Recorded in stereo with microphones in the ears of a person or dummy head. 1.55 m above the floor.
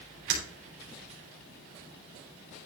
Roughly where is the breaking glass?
Right.